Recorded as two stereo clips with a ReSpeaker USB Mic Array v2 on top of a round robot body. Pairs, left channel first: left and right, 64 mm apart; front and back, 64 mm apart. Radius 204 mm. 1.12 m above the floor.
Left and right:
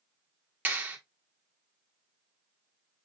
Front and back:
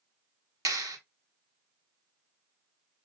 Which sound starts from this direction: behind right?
A clap, at 0.7 s.